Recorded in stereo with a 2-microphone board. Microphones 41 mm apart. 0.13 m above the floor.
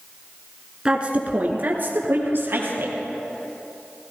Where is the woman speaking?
20° right (ahead or behind), 1.4 m; by 3.0 s 65° right (ahead or behind), 3 m.